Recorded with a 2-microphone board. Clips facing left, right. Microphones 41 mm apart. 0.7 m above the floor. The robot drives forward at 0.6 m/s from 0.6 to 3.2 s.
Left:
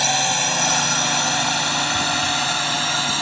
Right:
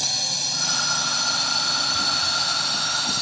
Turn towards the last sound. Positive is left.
turn(degrees=50)  # may be behind; listen again after turning